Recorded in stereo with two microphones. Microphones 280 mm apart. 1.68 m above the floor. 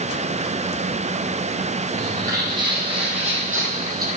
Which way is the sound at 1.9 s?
10° right (ahead or behind).